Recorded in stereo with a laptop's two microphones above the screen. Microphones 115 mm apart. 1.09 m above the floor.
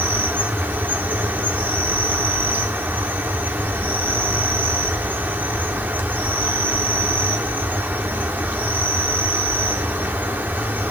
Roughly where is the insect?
Centre.